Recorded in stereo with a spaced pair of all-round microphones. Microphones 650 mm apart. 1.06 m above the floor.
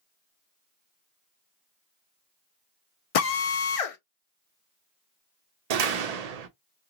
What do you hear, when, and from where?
3.1 s a drill: 60° left (ahead or behind), 0.6 m
5.7 s a door slam: 70° right (ahead or behind), 0.6 m